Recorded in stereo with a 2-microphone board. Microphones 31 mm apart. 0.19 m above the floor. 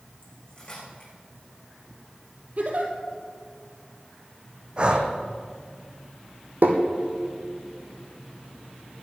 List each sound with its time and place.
0.2 s cutlery clinking: 30° left (ahead or behind), 6.5 m
2.6 s a giggle: 50° right (ahead or behind), 2.5 m
4.8 s breathing: 30° right (ahead or behind), 1.6 m
6.6 s tapping: 80° right, 2.5 m